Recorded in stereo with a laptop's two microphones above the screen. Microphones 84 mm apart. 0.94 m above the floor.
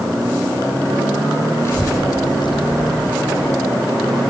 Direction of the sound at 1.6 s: 35° left (ahead or behind).